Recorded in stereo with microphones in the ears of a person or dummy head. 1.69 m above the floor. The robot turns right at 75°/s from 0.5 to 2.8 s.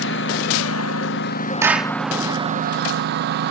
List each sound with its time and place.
0.0 s a lawn mower: 60° left (ahead or behind); by 3.5 s 45° right (ahead or behind)
1.6 s a clap: 25° right (ahead or behind); by 2.0 s centre (ahead or behind)